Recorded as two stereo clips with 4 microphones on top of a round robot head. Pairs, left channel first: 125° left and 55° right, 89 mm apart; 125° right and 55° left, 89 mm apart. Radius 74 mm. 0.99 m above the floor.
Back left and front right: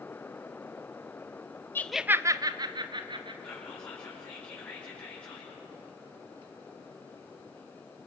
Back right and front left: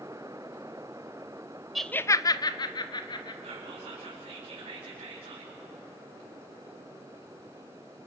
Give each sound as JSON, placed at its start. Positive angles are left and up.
{"t": 1.8, "sound": "laughter", "azimuth_deg": 140, "distance_m": 0.6}
{"t": 3.4, "sound": "whispering", "azimuth_deg": 60, "distance_m": 4.5}